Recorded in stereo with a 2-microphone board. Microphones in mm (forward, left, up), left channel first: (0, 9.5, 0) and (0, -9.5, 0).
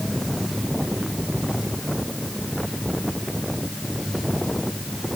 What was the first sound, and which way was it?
Only background noise.